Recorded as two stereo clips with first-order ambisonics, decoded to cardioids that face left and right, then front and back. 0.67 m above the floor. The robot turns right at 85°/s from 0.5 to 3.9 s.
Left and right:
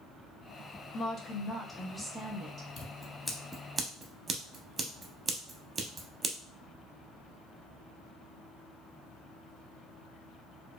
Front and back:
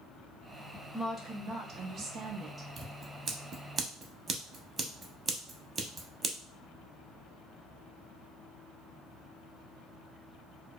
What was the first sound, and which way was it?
A woman speaking, 100° left.